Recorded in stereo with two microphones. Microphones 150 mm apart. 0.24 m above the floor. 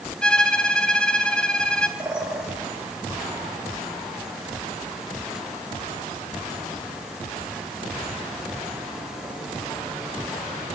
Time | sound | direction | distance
0.2 | a violin | 5° left (ahead or behind) | 1.3 m
2.0 | a bird | 5° right (ahead or behind) | 3.5 m